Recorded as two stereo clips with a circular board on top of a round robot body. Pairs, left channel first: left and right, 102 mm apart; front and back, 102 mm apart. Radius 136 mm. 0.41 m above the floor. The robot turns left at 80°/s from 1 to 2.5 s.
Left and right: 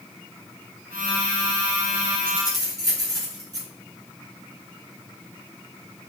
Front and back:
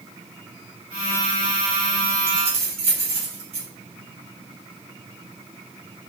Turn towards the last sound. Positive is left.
turn(degrees=-150)